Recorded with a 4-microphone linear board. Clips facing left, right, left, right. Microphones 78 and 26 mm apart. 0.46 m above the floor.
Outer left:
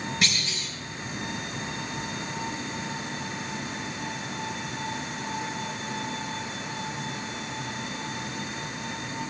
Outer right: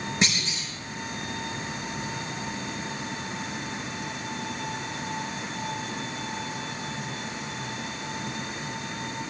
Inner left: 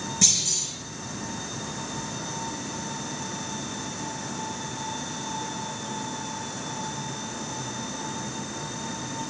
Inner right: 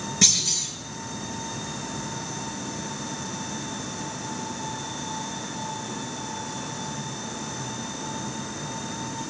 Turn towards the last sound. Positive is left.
turn(degrees=-25)  # may be behind; listen again after turning